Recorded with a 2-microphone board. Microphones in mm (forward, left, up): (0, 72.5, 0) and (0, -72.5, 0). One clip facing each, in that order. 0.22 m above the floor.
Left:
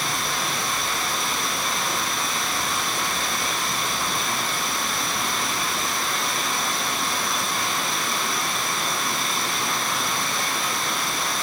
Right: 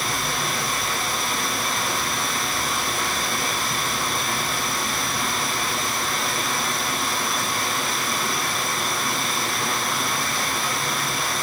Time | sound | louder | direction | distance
0.0 | running water | right 1 dB | centre (ahead or behind) | 2.5 m